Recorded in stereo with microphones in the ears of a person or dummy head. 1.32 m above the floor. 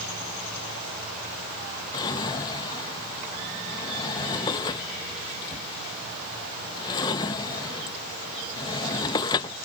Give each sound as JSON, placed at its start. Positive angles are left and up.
{"t": 1.9, "sound": "a drawer", "side_deg": 30}